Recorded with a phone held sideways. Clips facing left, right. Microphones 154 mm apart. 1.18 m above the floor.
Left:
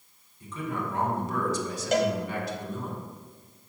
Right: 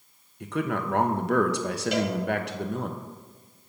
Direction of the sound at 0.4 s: 85° right.